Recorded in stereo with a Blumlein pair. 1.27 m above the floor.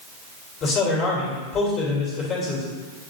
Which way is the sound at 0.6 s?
30° left.